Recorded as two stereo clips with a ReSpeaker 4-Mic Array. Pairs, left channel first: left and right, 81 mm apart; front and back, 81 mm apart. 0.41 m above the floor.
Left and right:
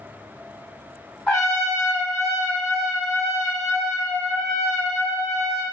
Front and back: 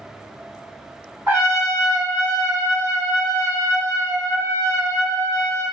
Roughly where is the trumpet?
Behind.